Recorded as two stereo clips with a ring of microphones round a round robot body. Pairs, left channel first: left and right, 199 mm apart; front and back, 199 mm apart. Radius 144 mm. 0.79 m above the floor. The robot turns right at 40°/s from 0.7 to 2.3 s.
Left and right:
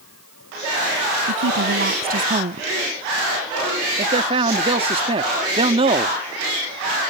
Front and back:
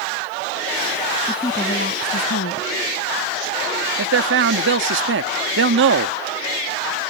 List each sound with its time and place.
1.3 s a woman speaking: 80° right; by 2.7 s 40° right
4.0 s a man speaking: 155° right